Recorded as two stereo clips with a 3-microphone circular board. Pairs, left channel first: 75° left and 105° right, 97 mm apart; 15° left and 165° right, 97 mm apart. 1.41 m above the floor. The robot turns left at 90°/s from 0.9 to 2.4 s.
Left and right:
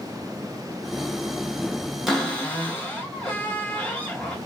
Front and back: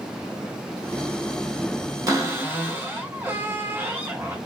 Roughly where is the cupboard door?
Behind.